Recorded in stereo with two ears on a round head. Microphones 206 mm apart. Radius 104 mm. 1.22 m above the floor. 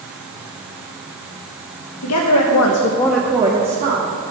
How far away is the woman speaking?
About 1.3 m.